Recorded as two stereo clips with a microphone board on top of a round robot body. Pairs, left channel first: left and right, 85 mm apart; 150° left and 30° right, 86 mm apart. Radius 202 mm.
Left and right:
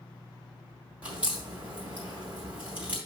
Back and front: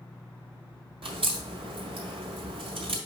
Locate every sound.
1.0 s a crack: 15° right, 2.5 m